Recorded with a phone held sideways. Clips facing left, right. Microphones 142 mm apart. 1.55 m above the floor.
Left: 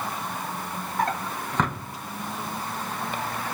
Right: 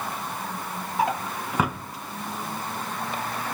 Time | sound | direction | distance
1.0 | a drawer | 10° right (ahead or behind) | 0.7 m